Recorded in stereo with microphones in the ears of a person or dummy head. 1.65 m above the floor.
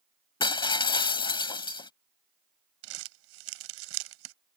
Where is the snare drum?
No snare drum in this recording.